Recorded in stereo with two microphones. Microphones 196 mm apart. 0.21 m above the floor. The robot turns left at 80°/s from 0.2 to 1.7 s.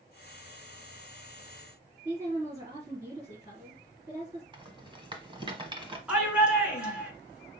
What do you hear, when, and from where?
2.0 s a woman speaking: 15° right (ahead or behind), 3 m
4.5 s a rattle: 25° right (ahead or behind), 1.1 m
6.1 s a shout: 5° right (ahead or behind), 2.0 m